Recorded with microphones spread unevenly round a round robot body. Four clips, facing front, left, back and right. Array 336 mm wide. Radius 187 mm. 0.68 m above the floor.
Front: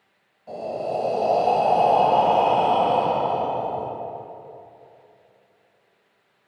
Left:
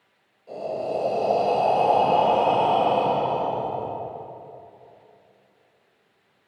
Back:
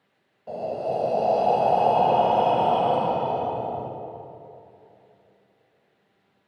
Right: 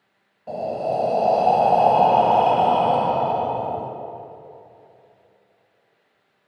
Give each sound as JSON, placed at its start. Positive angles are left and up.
{"t": 0.5, "sound": "breathing", "azimuth_deg": -100, "distance_m": 1.5}